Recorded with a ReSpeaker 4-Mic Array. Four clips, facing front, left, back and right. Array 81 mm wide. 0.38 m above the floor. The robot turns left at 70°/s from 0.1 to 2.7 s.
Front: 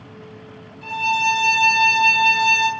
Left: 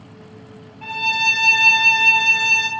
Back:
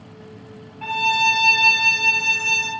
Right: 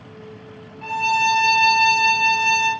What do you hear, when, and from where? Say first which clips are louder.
0.8 s a violin: right 4 dB, even; 170° left, 1.2 m; by 2.7 s 40° left, 1.2 m